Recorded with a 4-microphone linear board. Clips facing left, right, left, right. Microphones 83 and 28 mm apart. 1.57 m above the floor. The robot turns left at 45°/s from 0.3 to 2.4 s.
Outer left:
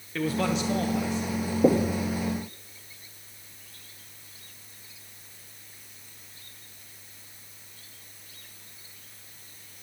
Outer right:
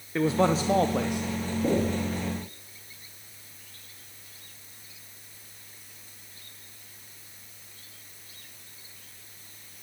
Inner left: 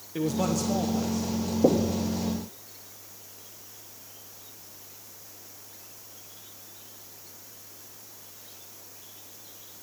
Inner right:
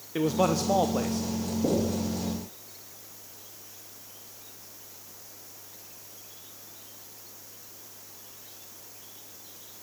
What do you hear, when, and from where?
0.1 s a man speaking: 25° right, 0.7 m; by 1.3 s 65° right, 0.7 m
1.6 s knocking: 65° left (ahead or behind), 1.5 m; by 2.0 s 60° left (ahead or behind), 1.5 m